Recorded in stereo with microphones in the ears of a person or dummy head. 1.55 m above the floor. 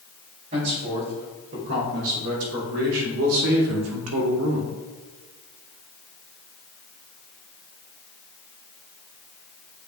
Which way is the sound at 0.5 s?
50° right (ahead or behind).